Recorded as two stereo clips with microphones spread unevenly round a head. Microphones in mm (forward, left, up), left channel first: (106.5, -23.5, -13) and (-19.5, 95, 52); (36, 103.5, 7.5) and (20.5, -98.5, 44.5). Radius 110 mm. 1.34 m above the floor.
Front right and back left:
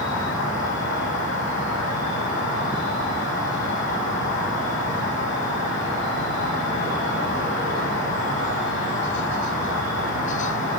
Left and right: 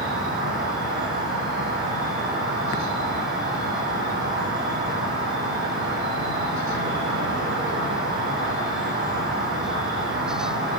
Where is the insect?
60° right, 8 m.